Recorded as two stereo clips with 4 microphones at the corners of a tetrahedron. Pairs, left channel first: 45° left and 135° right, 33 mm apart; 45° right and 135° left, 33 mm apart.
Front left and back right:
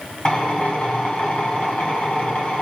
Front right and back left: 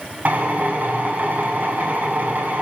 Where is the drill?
95° left, 5.5 m.